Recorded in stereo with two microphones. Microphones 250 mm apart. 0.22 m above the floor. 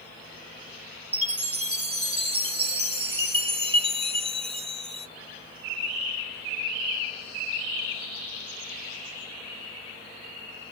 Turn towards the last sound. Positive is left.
turn(degrees=-20)  # may be behind; listen again after turning